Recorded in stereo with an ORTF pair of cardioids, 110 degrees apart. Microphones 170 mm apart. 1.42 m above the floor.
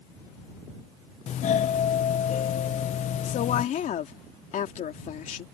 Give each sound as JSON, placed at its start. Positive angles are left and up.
{"t": 1.3, "sound": "a doorbell", "azimuth_deg": 50}
{"t": 3.2, "sound": "a woman speaking", "azimuth_deg": 50}